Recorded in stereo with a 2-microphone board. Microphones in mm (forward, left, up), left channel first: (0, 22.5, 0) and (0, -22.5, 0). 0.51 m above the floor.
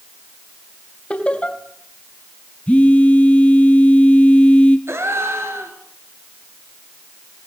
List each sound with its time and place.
1.1 s laughter: 25° left (ahead or behind), 3.5 m
2.7 s a phone buzzing: 30° left (ahead or behind), 1.7 m
4.9 s a gasp: 75° right (ahead or behind), 4 m